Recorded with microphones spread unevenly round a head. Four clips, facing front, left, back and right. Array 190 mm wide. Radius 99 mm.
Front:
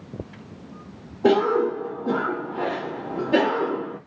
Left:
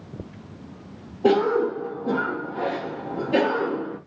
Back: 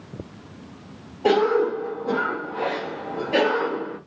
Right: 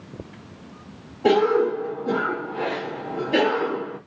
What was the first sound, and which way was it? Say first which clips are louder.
A cough: right 1 dB, even; 30° left.